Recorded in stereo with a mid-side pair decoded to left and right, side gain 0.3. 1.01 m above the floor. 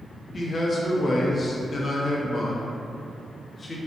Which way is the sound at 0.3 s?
45° left.